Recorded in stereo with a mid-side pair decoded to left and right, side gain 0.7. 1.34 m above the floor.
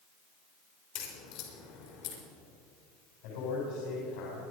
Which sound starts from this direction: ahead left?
A crack, at 0.9 s.